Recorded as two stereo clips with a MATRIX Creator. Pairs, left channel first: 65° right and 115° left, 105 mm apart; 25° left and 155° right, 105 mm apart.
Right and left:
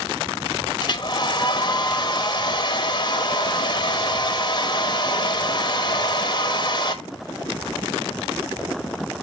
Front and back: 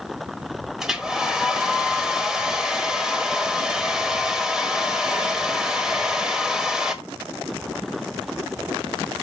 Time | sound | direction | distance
0.8 | a hair dryer | 75° right | 1.1 m